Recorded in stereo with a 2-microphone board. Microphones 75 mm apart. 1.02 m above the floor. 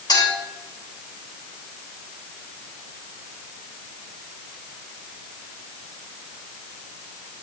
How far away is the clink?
About 3.5 m.